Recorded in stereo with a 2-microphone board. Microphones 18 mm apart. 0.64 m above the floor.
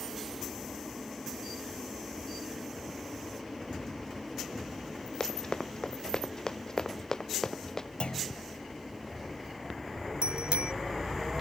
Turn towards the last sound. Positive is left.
turn(degrees=-75)  # may be behind; listen again after turning